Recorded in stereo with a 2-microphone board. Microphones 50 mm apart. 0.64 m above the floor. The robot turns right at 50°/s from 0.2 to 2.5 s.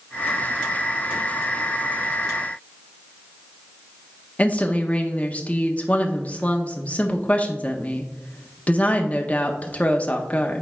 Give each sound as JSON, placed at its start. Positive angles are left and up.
{"t": 4.4, "sound": "a woman speaking", "side_deg": 25, "distance_m": 0.9}